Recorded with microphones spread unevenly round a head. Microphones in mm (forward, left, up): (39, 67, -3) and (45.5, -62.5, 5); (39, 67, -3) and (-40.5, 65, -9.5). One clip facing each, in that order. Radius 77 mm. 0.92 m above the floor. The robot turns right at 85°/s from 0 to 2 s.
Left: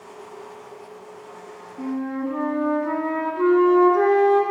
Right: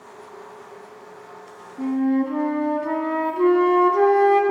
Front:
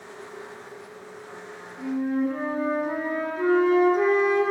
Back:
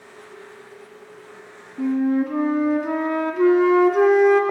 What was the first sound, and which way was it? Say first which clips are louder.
A flute: right 6 dB, back 5 dB; 170° right.